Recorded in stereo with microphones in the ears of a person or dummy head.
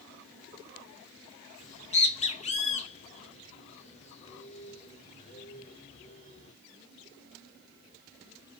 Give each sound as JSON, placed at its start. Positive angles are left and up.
{"t": 1.6, "sound": "a bird", "side_deg": 40, "distance_m": 0.9}